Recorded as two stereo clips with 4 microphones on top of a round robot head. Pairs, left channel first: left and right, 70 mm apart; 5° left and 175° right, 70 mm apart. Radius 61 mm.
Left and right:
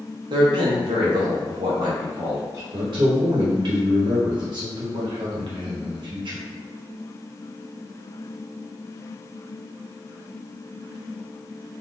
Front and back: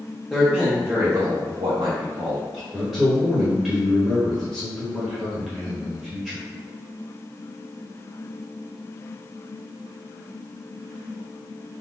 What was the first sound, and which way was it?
A man speaking, 85° right.